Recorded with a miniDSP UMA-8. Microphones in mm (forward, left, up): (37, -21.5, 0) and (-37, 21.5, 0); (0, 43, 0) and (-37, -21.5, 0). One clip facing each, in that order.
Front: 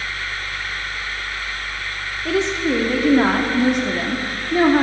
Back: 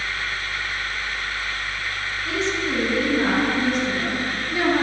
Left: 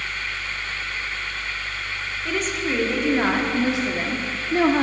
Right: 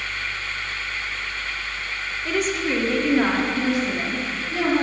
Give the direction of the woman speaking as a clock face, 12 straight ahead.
1 o'clock.